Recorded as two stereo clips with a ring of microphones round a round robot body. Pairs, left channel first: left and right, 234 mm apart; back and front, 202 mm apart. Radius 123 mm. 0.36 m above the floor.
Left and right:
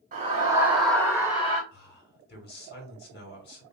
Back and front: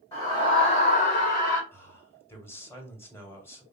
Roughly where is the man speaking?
Left.